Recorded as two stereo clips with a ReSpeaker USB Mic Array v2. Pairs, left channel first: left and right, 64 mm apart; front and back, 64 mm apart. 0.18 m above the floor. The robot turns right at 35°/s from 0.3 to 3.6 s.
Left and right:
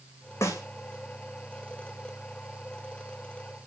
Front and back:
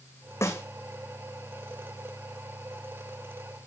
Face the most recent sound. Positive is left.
turn(degrees=155)